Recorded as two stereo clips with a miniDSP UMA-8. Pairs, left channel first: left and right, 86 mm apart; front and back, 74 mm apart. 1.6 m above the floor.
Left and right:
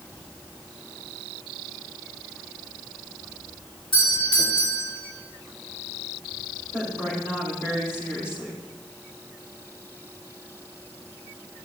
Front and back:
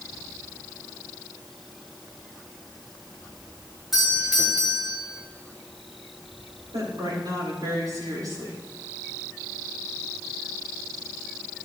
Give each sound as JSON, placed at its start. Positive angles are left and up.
{"t": 3.9, "sound": "a doorbell", "azimuth_deg": 95, "distance_m": 4.5}
{"t": 6.7, "sound": "a woman speaking", "azimuth_deg": 150, "distance_m": 6.5}